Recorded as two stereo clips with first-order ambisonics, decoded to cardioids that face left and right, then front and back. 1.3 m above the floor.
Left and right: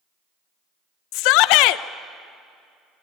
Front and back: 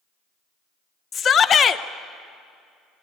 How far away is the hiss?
No hiss in this recording.